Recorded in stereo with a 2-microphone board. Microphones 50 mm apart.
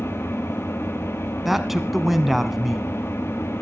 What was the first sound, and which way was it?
An engine running, 60° left (ahead or behind).